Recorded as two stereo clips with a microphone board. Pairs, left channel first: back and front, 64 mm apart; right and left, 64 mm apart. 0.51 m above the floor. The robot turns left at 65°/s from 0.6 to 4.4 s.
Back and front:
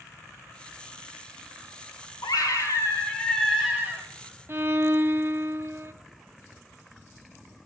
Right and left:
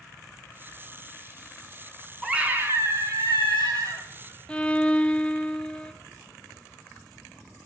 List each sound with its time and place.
2.2 s a scream: 170° left, 3.5 m; by 4.0 s 50° left, 3.5 m
4.5 s a violin: 25° right, 0.6 m